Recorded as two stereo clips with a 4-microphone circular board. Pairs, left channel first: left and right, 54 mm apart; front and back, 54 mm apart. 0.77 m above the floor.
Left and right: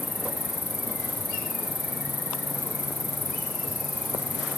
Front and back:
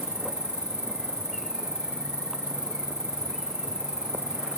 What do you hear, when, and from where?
0.0 s an insect: 145° right